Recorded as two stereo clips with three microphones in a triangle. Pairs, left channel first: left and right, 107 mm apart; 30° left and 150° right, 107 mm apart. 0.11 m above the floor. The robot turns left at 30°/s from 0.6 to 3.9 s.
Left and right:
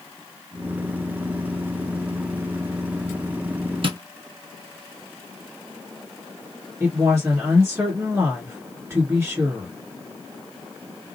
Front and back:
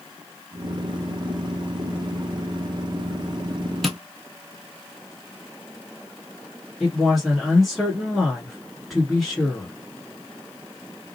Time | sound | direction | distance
3.8 | tapping | 60° right | 0.7 m
6.8 | a woman speaking | 60° right | 1.5 m